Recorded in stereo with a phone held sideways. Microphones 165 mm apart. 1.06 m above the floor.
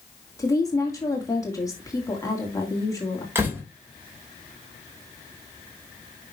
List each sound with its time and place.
0.4 s a woman speaking: 20° left (ahead or behind), 2 m
3.4 s a door slam: 15° right (ahead or behind), 3 m